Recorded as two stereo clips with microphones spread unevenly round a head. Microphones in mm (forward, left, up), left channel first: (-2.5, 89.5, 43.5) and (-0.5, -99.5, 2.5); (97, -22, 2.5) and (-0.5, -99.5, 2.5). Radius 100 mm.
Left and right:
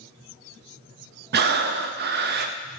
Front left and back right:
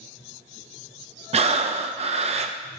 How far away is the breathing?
About 0.6 m.